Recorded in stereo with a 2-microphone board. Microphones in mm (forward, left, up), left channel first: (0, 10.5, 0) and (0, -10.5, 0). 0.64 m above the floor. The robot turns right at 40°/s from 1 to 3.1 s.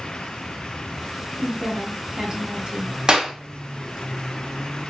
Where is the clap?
45° right (ahead or behind), 0.9 m.